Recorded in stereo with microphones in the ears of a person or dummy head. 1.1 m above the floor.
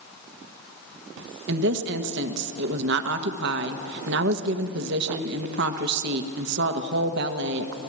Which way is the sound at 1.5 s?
60° right (ahead or behind).